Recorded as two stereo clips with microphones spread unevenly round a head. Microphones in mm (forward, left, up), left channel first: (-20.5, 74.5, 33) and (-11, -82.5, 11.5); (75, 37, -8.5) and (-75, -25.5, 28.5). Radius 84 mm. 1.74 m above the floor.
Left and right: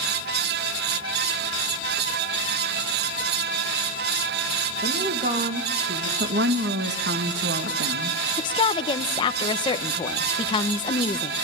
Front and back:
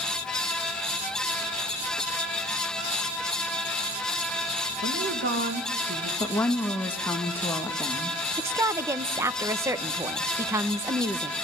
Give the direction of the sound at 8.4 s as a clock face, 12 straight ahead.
7 o'clock.